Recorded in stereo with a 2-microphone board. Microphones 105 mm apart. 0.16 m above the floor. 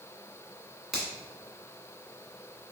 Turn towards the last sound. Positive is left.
turn(degrees=-5)  # may be behind; listen again after turning